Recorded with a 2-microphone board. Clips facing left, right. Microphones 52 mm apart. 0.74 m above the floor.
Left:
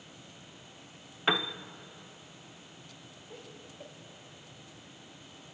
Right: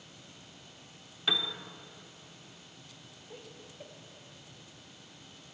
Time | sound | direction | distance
1.3 | a piano | 40° left (ahead or behind) | 0.7 m
3.3 | laughter | centre (ahead or behind) | 1.5 m